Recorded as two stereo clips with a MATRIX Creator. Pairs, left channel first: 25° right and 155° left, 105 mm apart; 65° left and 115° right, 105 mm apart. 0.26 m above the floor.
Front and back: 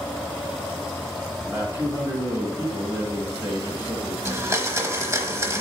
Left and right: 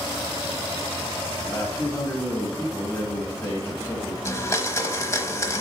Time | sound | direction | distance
1.4 | a man speaking | 115° left | 1.4 m
4.2 | a blender | 110° left | 0.9 m